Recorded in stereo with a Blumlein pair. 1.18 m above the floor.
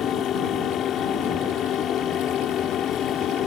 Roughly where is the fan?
Ahead left.